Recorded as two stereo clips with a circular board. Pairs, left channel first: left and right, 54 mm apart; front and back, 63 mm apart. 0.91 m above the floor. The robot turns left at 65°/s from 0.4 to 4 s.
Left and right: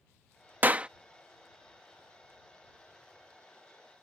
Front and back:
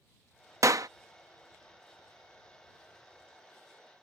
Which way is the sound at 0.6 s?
145° right.